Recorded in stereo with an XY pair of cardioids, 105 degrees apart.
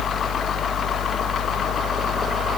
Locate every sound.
0.0 s a fan: 40° left, 0.9 m